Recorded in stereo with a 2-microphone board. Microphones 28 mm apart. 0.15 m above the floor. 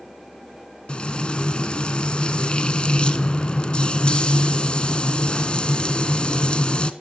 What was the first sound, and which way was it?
Frying, 35° left (ahead or behind).